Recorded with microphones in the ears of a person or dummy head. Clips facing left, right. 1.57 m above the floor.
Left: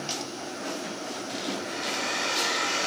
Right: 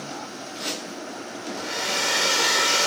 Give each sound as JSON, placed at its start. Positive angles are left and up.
{"t": 1.6, "sound": "a hair dryer", "side_deg": -60, "distance_m": 1.2}